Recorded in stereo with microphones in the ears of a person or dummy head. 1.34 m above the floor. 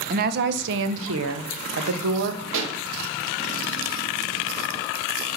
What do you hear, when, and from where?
0.1 s a woman speaking: 50° right (ahead or behind), 1.1 m; by 2.4 s 65° right (ahead or behind), 1.6 m
2.5 s a pop: 75° right (ahead or behind), 1.9 m